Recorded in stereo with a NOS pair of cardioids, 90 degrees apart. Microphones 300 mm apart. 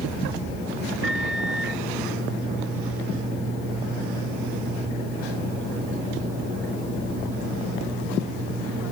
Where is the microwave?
45° right.